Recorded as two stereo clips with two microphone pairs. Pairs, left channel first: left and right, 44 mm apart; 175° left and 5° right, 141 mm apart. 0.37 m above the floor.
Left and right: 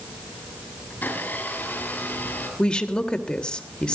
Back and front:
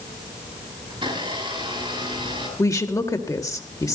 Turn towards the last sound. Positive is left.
turn(degrees=135)